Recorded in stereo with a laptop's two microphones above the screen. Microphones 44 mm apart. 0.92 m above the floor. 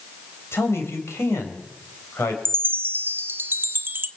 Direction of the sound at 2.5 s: 55° right (ahead or behind).